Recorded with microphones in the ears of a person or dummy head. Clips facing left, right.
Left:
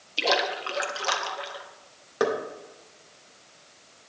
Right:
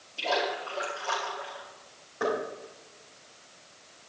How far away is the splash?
About 1.4 m.